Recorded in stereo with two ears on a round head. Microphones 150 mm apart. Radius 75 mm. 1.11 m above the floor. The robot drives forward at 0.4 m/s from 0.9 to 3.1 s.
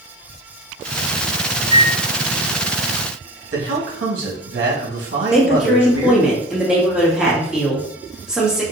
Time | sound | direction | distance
1.6 | a microwave | 75° right (ahead or behind) | 2.0 m
3.5 | a man speaking | 80° right | 1.3 m
5.3 | a woman speaking | 5° right (ahead or behind) | 1.1 m